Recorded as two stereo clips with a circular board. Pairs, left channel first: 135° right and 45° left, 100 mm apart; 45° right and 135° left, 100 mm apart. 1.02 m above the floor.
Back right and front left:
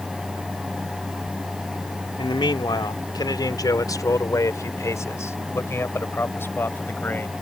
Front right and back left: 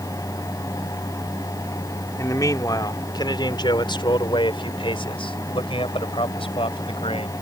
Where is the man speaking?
100° right; by 7.3 s 65° right.